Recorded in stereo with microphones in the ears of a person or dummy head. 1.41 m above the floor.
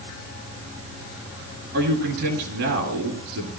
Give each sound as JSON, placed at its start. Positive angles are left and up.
{"t": 1.7, "sound": "a man speaking", "side_deg": -60, "distance_m": 9.5}